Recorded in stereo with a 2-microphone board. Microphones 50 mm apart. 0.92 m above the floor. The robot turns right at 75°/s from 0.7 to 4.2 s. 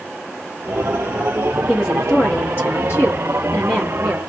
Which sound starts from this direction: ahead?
A woman speaking, at 1.7 s.